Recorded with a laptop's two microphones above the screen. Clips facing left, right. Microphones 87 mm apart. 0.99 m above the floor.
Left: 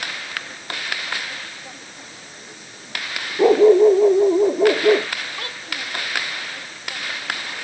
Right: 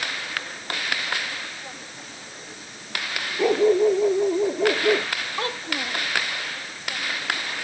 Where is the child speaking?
30° right (ahead or behind).